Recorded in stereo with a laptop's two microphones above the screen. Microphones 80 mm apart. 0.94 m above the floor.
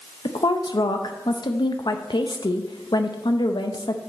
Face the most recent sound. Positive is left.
turn(degrees=70)  # may be behind; listen again after turning